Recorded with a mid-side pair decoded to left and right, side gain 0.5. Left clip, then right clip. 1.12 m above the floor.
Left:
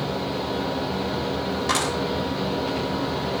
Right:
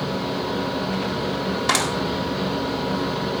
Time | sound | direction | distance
0.0 | a fan | 30° right | 3.5 m
1.7 | a clap | 45° right | 6 m